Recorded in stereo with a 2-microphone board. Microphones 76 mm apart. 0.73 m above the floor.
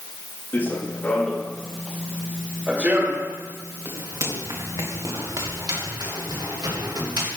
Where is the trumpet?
No trumpet in this recording.